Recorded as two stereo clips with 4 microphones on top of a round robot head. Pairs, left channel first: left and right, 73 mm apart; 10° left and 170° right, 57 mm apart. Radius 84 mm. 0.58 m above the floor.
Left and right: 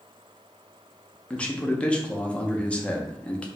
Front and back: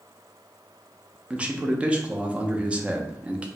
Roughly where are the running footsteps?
No running footsteps in this recording.